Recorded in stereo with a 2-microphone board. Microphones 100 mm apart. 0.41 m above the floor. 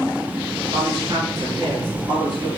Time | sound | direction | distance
0.7 | a woman speaking | 50° right (ahead or behind) | 5 m